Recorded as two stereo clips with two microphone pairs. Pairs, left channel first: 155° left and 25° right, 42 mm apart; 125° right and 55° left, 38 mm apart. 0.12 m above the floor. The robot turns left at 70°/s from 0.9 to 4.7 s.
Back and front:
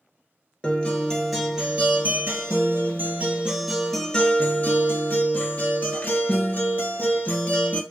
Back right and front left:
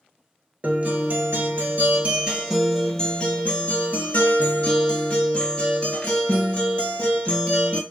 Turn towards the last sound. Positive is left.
turn(degrees=-175)